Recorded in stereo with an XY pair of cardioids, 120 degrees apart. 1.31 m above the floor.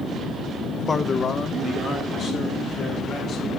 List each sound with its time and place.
0.9 s a man speaking: 25° left, 1.0 m; by 3.5 s 50° left, 3.5 m